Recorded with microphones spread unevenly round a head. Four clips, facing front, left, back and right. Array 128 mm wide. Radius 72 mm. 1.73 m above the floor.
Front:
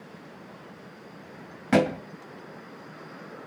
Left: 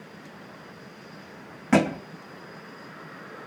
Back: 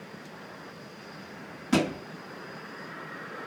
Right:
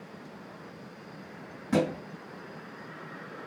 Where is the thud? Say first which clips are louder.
Left 5 dB, front 4 dB; 25° left, 1.7 m.